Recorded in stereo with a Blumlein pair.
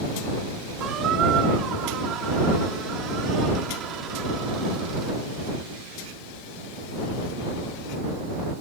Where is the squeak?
30° right.